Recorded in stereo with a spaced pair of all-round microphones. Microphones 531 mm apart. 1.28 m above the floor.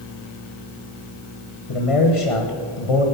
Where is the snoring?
I don't hear snoring.